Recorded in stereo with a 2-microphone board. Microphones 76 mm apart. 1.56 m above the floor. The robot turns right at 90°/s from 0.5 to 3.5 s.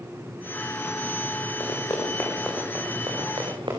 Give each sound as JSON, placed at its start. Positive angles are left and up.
{"t": 1.6, "sound": "running footsteps", "side_deg": 70, "distance_m": 7.0}